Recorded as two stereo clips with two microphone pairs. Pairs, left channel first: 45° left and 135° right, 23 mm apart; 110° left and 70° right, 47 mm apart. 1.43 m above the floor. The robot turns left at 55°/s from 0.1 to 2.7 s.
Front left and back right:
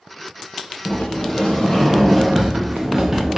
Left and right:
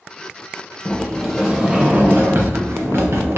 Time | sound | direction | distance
0.8 | a sliding door | 40° left | 0.9 m